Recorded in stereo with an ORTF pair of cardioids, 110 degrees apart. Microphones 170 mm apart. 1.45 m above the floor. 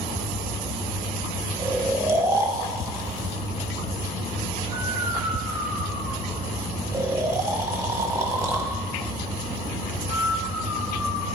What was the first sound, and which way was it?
Snoring, 15° right.